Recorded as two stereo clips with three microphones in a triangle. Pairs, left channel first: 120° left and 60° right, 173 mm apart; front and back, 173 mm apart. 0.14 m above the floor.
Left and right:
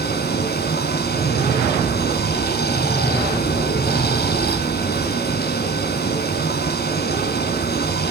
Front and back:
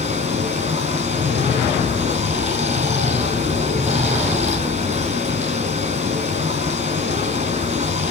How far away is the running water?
About 3.5 m.